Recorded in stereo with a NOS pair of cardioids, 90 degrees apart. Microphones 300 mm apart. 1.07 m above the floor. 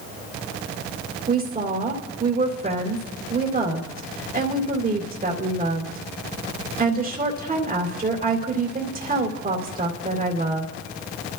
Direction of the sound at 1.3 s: 30° right.